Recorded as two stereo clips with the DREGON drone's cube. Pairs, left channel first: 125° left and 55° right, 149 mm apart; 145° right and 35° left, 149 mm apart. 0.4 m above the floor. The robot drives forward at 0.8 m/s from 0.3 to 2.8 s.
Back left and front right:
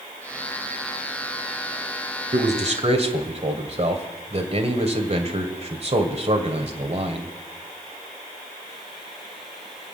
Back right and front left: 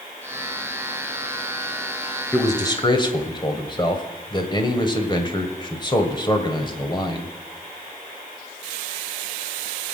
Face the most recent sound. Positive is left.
turn(degrees=-90)